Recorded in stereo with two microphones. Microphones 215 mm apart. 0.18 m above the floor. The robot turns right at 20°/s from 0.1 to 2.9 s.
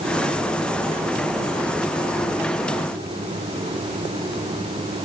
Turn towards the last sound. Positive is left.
No sound to turn to.